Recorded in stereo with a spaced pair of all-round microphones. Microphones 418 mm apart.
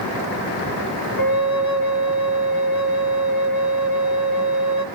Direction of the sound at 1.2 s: 55° left (ahead or behind).